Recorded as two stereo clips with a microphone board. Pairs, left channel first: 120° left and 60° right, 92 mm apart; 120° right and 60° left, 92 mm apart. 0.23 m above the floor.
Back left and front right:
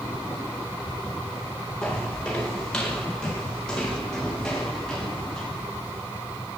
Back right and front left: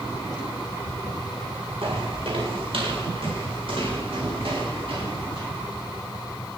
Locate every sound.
1.8 s footsteps: 40° left, 6 m; by 5.5 s 35° left, 9.5 m